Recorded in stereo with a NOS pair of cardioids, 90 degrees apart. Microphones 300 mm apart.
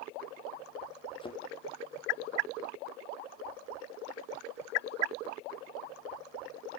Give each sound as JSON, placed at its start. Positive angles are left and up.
{"t": 1.2, "sound": "a thud", "azimuth_deg": 20, "distance_m": 3.0}